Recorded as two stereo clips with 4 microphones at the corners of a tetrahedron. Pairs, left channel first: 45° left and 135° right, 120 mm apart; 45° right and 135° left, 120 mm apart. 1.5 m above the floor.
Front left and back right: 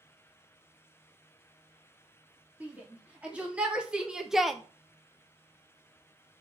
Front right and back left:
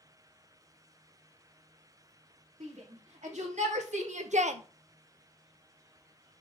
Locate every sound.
2.6 s a shout: 145° left, 3.5 m; by 4.6 s 130° left, 0.8 m